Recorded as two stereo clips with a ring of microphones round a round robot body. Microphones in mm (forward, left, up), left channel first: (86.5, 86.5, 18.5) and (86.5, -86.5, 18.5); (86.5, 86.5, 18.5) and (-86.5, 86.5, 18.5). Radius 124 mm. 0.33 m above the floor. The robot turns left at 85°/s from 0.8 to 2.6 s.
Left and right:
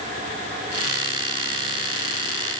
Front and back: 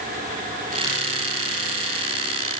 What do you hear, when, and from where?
Only background noise.